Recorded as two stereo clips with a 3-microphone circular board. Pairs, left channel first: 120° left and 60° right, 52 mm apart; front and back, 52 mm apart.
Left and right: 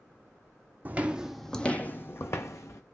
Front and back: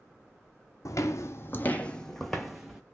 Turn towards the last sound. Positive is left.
turn(degrees=100)